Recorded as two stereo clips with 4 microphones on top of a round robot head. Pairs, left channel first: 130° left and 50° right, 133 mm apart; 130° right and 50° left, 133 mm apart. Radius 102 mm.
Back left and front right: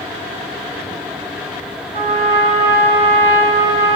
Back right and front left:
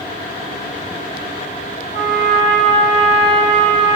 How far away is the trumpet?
About 3 m.